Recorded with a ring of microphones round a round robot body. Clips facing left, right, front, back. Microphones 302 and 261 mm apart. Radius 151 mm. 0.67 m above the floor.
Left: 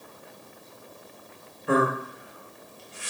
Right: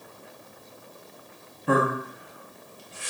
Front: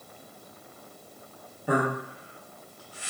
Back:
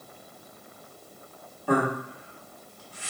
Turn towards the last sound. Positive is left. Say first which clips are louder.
# even, back 2 dB
turn(degrees=-75)